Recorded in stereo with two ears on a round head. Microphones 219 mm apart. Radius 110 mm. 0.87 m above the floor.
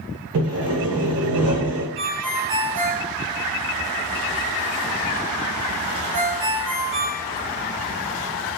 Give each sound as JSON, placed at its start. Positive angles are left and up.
{"t": 0.3, "sound": "sawing", "side_deg": -70, "distance_m": 1.1}
{"t": 2.0, "sound": "a ringtone", "side_deg": -85, "distance_m": 1.9}